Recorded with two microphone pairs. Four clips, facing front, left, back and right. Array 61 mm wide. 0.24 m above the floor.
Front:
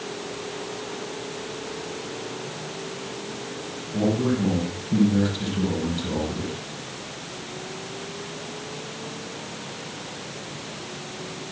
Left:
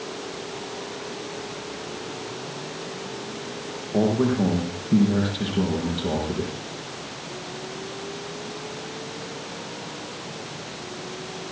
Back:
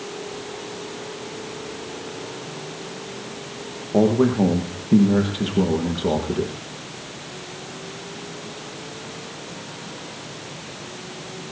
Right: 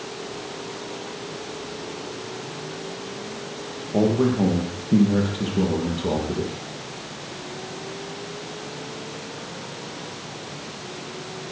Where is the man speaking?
175° right, 6.5 m.